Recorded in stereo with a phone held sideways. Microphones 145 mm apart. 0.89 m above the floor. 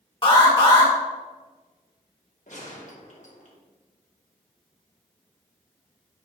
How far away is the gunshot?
About 1.5 m.